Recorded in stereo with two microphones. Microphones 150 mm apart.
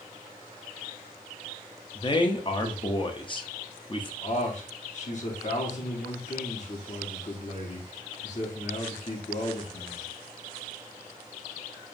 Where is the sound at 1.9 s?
30° left (ahead or behind), 0.6 m.